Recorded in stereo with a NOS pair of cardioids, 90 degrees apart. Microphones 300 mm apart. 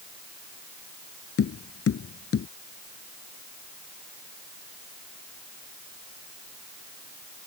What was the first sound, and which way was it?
Tapping, 50° left.